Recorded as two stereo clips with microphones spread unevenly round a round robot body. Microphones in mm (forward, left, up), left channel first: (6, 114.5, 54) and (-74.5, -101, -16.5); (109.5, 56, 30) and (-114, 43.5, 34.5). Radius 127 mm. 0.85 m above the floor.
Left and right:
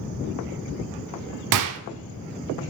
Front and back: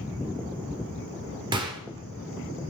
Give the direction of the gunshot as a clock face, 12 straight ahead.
3 o'clock.